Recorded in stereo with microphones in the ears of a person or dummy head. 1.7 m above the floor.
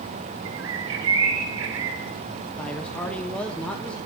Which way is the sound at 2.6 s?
5° left (ahead or behind).